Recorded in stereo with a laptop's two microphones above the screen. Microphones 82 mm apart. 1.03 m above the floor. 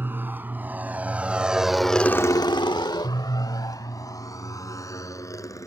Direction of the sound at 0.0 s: 25° right (ahead or behind).